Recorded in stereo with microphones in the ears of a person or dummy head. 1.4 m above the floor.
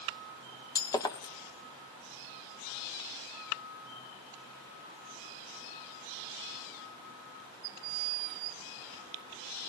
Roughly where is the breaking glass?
Centre.